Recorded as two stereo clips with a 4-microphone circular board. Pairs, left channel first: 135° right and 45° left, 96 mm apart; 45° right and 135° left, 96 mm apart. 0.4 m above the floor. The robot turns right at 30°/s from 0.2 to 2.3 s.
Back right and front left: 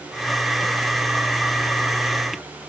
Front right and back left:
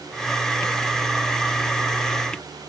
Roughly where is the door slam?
I don't hear a door slam.